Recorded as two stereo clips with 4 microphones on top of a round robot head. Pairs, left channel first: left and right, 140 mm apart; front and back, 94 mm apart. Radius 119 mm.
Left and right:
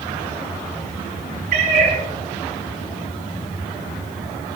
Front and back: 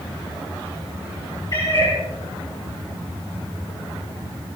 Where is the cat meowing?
65° right, 7.5 m.